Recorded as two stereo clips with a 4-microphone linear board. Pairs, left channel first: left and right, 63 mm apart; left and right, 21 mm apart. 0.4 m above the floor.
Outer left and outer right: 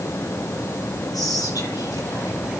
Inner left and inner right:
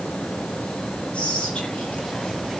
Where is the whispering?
80° left, 9 m.